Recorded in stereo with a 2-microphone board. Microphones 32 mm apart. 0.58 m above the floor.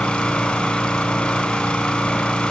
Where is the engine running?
35° left (ahead or behind), 2 m.